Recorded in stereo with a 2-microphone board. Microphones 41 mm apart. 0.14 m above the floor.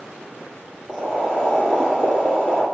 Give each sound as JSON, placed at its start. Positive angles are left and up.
{"t": 0.9, "sound": "boiling", "side_deg": 10, "distance_m": 1.4}